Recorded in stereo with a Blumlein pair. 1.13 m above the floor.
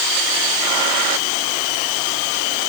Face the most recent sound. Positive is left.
No sound to turn to.